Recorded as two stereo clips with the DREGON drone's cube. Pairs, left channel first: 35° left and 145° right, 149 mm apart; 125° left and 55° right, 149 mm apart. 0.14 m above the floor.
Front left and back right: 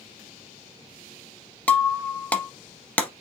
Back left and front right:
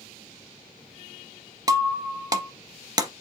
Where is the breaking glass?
35° right, 0.7 m.